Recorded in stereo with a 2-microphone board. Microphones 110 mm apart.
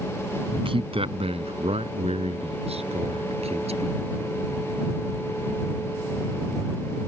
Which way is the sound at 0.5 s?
55° right (ahead or behind).